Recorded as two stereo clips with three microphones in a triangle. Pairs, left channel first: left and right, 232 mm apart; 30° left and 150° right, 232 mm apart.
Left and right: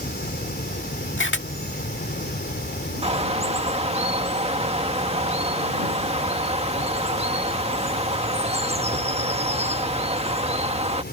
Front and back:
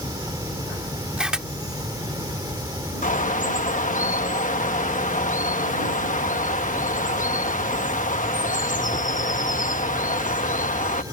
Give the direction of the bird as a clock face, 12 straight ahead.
1 o'clock.